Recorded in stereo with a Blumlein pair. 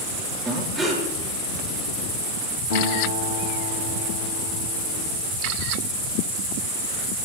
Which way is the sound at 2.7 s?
60° left.